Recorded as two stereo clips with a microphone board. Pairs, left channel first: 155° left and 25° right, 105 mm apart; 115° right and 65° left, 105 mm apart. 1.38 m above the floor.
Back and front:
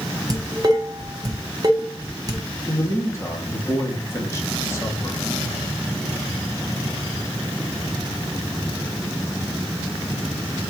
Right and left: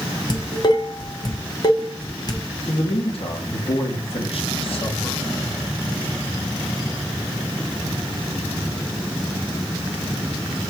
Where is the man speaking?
135° right, 2.5 m.